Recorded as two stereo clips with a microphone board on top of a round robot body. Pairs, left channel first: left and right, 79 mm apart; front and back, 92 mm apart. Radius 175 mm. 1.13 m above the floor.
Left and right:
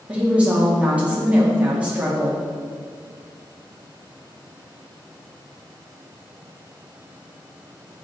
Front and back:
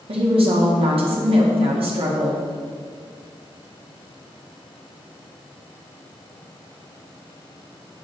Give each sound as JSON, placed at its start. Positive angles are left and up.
{"t": 0.1, "sound": "a woman speaking", "azimuth_deg": -165, "distance_m": 2.0}